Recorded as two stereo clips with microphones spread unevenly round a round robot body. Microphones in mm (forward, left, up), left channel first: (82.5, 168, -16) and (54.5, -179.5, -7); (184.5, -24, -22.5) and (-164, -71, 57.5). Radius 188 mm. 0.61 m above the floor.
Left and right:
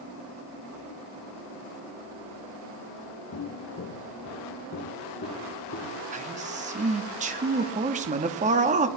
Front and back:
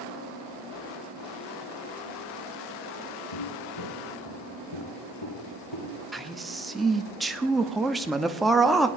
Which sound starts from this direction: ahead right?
A man speaking, at 6.1 s.